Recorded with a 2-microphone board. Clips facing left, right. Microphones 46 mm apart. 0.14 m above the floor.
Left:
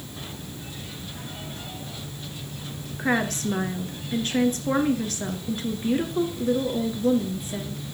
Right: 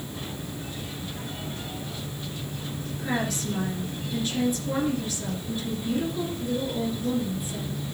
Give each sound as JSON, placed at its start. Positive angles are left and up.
{"t": 3.0, "sound": "a woman speaking", "side_deg": 50, "distance_m": 1.9}